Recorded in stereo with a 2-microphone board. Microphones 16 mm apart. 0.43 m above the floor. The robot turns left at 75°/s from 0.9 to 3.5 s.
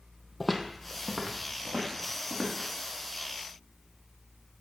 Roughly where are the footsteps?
Centre.